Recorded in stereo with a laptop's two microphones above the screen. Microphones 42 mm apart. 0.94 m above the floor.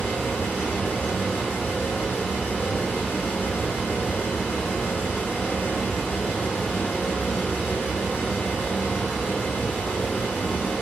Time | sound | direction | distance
0.0 | a fan | 45° left (ahead or behind) | 1.2 m